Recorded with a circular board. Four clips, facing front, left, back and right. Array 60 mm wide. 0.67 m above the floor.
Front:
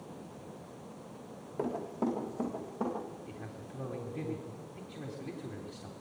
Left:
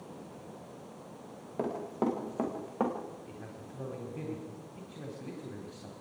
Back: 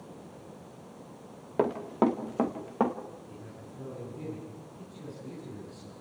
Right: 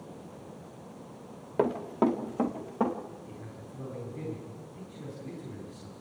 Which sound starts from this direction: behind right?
Running footsteps, at 1.6 s.